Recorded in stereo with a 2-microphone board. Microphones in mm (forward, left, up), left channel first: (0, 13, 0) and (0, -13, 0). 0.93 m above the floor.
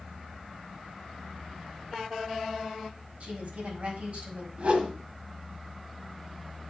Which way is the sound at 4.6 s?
60° right (ahead or behind).